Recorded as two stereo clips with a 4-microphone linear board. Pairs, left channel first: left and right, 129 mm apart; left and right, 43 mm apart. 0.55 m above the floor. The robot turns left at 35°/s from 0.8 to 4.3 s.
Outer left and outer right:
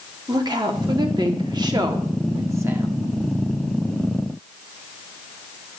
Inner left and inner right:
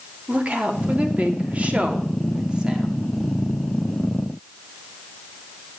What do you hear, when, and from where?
0.3 s a woman speaking: 75° right, 0.7 m; by 2.9 s 150° right, 0.7 m